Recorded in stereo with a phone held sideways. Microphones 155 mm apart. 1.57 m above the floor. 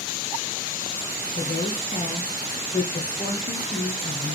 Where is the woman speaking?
65° left (ahead or behind), 1.3 m.